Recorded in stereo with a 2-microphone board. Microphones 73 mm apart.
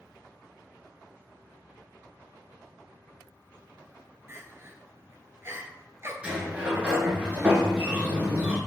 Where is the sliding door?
15° right (ahead or behind), 1.2 m.